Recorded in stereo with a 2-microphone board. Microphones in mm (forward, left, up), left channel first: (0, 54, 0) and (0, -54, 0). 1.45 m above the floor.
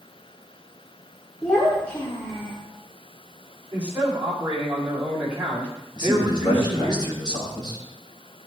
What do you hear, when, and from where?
1.4 s a child speaking: 10° left (ahead or behind), 3.5 m; by 2.6 s 20° left (ahead or behind), 3 m
3.7 s a man speaking: 15° right (ahead or behind), 7.5 m
6.0 s a man speaking: 40° left (ahead or behind), 6.5 m